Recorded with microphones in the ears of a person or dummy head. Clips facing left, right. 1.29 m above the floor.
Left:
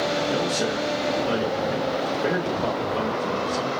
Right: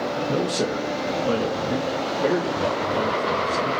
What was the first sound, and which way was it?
A man speaking, 50° right (ahead or behind).